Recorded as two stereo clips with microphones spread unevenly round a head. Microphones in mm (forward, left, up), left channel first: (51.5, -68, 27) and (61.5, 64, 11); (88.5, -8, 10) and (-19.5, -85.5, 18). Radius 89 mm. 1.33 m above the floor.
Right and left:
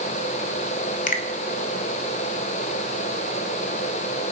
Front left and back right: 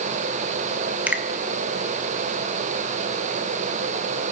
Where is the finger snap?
65° right, 1.5 m.